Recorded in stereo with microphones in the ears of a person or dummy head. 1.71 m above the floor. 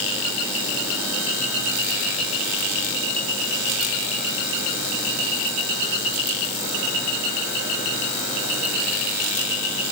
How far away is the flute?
No flute in this recording.